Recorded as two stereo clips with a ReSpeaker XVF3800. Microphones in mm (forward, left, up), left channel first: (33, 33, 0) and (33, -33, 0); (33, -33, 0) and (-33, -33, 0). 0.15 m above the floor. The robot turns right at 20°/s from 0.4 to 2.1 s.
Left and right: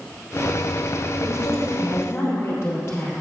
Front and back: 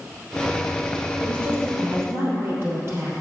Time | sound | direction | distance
1.2 | a woman speaking | 115° left | 3 m